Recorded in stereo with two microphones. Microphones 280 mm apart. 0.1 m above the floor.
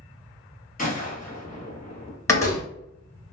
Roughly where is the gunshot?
Left.